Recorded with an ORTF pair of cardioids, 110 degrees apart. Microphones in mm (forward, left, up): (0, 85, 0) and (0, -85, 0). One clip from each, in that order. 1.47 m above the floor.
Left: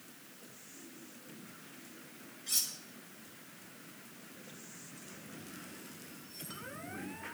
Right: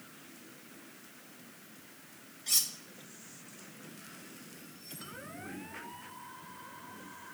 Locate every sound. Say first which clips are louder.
2.5 s cutlery clinking: right 4 dB; 50° right, 1.9 m